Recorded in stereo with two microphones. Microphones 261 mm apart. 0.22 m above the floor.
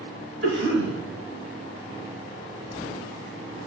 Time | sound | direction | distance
0.4 | a cough | 45° right (ahead or behind) | 4.5 m